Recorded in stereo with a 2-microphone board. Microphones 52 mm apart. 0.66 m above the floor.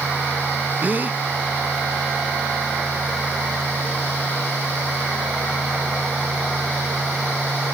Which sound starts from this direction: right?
A gasp, at 0.8 s.